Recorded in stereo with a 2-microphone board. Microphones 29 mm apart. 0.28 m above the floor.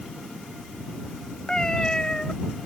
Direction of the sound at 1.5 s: 25° left (ahead or behind).